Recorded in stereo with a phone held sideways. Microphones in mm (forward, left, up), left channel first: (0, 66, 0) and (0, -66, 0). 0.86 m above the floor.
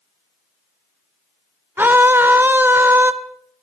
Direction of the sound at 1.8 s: 15° right (ahead or behind).